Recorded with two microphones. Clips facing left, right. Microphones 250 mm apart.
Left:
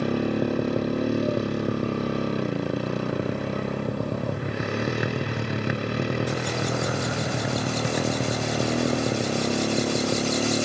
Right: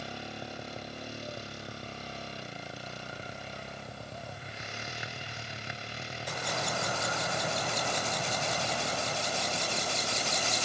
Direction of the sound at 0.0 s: 75° left (ahead or behind).